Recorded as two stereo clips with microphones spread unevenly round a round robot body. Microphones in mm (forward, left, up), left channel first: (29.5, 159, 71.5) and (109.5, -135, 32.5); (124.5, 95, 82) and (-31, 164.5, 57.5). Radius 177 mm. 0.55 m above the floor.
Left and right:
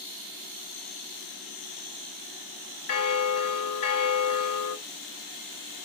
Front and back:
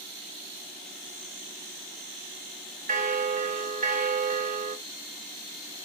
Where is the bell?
135° left, 0.7 m.